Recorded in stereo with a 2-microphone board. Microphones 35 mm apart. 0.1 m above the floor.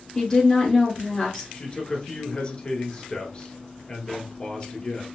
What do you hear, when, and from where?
0.1 s a woman speaking: 15° left (ahead or behind), 1.4 m
1.5 s a man speaking: 35° left (ahead or behind), 1.3 m